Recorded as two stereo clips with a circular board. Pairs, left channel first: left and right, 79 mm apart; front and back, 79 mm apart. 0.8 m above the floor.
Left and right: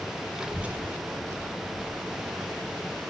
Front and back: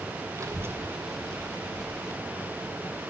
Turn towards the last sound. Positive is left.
turn(degrees=-35)